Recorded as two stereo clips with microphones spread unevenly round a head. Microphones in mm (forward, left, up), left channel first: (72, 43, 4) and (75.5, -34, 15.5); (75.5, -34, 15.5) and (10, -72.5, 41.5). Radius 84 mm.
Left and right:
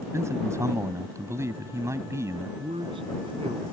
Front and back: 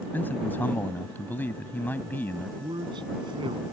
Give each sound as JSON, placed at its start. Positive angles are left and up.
{"t": 0.1, "sound": "a man speaking", "azimuth_deg": -35}
{"t": 2.6, "sound": "a man speaking", "azimuth_deg": -135}